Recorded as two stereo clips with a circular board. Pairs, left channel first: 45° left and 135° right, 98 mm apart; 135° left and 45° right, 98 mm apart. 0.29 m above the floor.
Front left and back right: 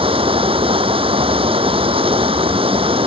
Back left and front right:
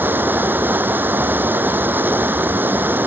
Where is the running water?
115° right.